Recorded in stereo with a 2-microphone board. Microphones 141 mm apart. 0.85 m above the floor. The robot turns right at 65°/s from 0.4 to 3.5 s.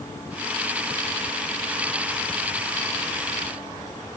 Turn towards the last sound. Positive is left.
No sound to turn to.